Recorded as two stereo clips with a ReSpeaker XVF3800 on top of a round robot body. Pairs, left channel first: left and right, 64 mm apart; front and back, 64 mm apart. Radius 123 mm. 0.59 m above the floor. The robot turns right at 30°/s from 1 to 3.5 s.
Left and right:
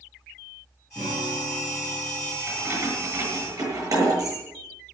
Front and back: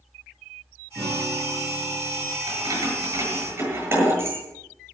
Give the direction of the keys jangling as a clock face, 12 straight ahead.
5 o'clock.